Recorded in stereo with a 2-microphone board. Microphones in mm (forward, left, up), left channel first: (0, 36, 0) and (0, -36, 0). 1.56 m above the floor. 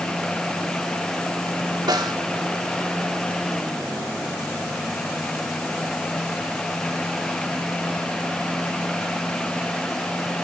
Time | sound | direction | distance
1.9 | a snare drum | 75° right (ahead or behind) | 2.5 m